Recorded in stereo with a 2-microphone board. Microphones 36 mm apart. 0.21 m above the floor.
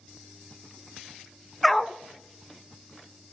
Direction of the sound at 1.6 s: 10° left (ahead or behind).